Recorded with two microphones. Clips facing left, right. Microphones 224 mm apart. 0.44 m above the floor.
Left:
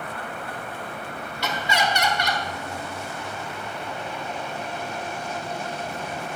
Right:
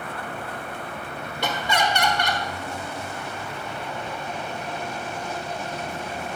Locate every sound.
1.4 s laughter: 50° right (ahead or behind), 1.5 m